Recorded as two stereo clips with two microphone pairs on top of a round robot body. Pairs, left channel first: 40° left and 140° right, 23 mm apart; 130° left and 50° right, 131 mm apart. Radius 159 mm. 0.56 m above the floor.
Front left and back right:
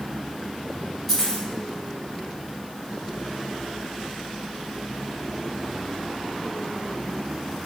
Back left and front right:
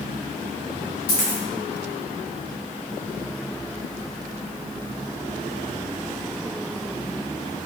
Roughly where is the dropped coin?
Behind left.